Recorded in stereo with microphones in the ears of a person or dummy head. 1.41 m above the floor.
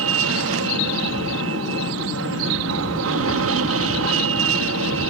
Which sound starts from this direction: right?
An aircraft, at 0.0 s.